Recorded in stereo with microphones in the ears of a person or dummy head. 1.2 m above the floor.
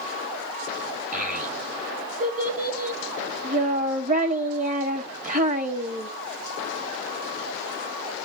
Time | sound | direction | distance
1.1 | a child speaking | 30° right (ahead or behind) | 1.8 m